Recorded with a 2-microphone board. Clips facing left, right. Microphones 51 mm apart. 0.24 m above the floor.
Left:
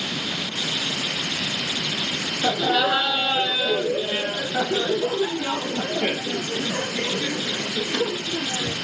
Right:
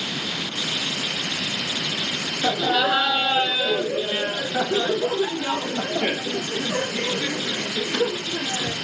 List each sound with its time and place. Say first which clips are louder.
2.4 s laughter: even; centre (ahead or behind), 1.4 m; by 8.7 s 10° right (ahead or behind), 3 m